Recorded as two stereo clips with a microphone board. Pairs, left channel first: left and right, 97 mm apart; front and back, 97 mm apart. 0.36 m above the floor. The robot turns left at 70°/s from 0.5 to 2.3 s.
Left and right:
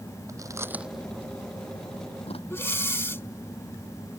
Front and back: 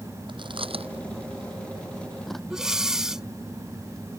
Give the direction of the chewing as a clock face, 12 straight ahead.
5 o'clock.